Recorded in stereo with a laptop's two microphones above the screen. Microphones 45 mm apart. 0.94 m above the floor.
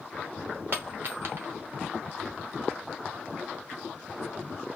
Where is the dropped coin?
55° right (ahead or behind), 0.8 m.